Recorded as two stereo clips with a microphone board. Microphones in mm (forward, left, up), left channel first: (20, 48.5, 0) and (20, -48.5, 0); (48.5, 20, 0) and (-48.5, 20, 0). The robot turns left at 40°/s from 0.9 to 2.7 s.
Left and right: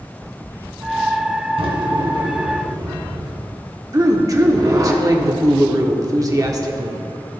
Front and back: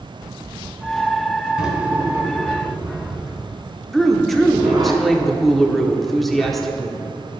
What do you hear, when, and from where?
1.6 s a drawer: 95° right, 1.8 m; by 4.9 s 140° right, 1.8 m
3.9 s a woman speaking: 85° right, 0.9 m